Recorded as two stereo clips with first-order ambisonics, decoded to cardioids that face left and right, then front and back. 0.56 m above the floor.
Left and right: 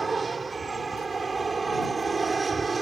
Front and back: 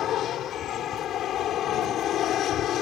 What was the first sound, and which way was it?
An aircraft, 20° right.